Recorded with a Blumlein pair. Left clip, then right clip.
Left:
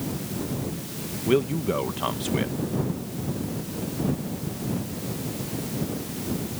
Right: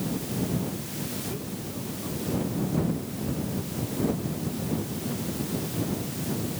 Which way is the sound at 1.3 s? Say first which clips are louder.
Left 13 dB; 50° left.